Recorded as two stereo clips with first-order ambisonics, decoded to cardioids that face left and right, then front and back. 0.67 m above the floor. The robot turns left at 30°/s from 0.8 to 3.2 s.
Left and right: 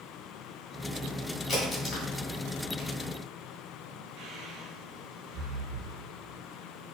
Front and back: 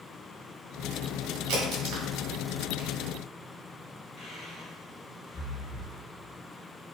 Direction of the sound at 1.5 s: 165° left.